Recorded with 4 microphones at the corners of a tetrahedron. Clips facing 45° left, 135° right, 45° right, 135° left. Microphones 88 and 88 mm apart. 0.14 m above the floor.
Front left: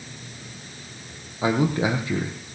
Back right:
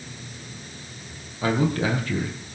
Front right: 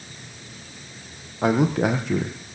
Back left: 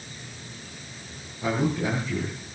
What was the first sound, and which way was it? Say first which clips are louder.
A man speaking: front left 1 dB, front right 6 dB; 30° right.